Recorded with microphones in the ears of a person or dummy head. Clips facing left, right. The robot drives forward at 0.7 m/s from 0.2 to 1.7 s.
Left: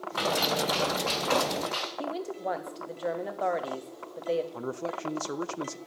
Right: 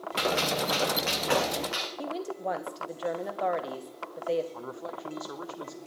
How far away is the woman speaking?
About 1.1 m.